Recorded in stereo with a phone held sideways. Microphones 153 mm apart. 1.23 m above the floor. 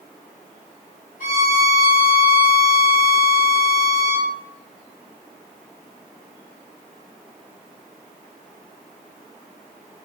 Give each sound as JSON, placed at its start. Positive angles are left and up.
{"t": 1.2, "sound": "a violin", "side_deg": -65, "distance_m": 1.7}